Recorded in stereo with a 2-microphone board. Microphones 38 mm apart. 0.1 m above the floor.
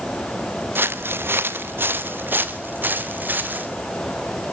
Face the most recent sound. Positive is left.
turn(degrees=-55)  # may be behind; listen again after turning